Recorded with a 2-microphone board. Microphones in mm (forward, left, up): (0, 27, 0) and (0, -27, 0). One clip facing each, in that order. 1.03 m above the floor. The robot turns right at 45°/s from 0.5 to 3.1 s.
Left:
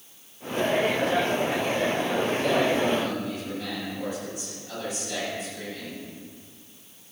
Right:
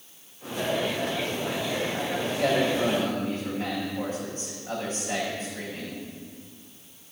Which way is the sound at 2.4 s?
75° right.